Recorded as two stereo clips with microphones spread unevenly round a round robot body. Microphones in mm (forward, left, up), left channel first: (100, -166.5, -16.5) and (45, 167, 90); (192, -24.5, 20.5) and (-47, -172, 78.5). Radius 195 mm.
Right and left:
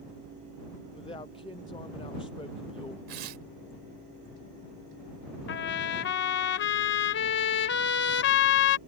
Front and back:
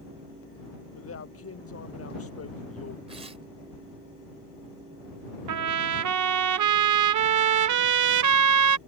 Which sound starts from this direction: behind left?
Tearing paper, at 3.1 s.